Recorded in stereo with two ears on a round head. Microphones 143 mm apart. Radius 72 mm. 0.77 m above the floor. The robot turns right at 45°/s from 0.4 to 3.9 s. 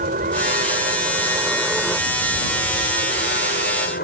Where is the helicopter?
65° right; by 4.0 s 95° left.